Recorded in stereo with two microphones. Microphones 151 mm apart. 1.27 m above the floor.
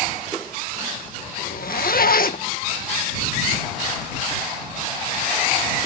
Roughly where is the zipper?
Left.